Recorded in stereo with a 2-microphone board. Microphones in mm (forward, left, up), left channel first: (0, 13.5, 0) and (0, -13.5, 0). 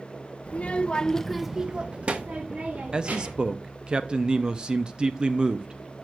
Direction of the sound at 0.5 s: 60° left (ahead or behind).